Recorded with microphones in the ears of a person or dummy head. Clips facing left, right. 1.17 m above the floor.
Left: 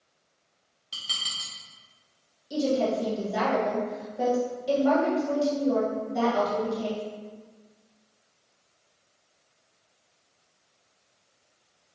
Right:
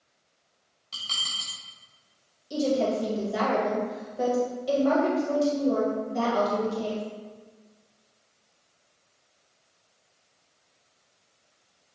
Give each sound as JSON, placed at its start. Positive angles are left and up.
{"t": 0.9, "sound": "dishes clattering", "side_deg": 15, "distance_m": 0.9}
{"t": 2.5, "sound": "a woman speaking", "side_deg": 0, "distance_m": 1.5}